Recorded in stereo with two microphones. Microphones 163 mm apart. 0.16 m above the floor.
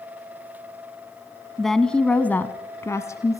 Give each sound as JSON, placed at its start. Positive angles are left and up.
{"t": 1.6, "sound": "a woman speaking", "side_deg": 0, "distance_m": 1.3}